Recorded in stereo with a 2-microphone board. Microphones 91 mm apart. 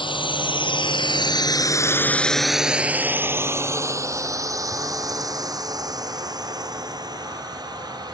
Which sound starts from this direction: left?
A drone, at 0.0 s.